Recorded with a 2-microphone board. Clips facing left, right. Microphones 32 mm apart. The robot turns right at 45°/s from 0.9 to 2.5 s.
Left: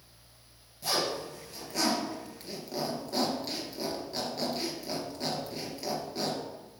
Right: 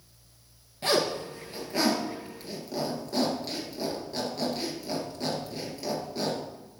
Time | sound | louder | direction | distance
0.8 | a zipper | right 5 dB | 55° right (ahead or behind) | 1.7 m